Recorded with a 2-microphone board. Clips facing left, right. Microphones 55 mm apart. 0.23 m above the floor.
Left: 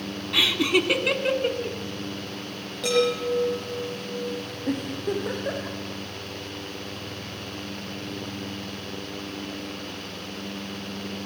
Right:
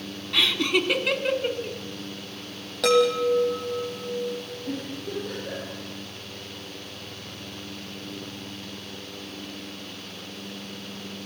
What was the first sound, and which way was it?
Laughter, 5° left (ahead or behind).